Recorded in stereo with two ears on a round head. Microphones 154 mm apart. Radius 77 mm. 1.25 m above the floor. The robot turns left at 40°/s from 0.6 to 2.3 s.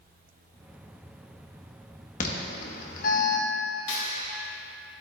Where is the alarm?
50° left (ahead or behind), 1.0 m; by 3.5 s 55° left (ahead or behind), 1.0 m.